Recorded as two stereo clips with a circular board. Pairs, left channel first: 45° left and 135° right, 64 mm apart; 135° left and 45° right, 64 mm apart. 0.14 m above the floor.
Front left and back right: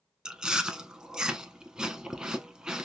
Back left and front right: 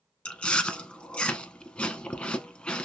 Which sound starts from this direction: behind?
Chewing, at 0.2 s.